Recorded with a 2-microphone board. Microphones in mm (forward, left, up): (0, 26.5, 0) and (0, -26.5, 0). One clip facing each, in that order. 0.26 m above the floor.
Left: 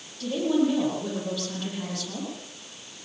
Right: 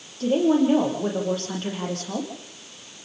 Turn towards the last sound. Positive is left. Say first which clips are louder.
# right 5 dB
turn(degrees=-40)  # may be behind; listen again after turning